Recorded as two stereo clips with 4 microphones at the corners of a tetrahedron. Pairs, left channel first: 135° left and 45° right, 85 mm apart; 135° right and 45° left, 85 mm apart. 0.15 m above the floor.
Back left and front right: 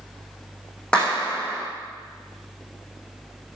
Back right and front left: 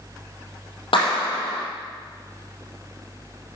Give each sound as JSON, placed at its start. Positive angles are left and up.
{"t": 0.9, "sound": "a clap", "azimuth_deg": -145, "distance_m": 5.0}